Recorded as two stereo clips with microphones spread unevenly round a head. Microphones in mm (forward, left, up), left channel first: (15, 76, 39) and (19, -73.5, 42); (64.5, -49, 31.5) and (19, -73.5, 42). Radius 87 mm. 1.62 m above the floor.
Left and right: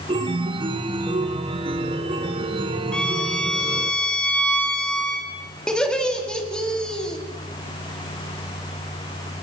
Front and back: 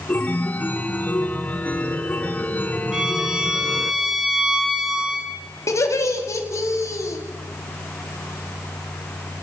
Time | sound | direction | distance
0.1 | a chime | 30° right | 1.8 m
2.9 | a violin | 170° left | 1.3 m
5.7 | laughter | 5° left | 4 m